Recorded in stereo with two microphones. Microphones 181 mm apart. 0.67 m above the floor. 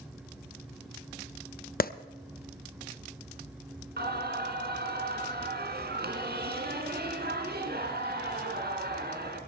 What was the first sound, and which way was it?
A clap, 55° left (ahead or behind).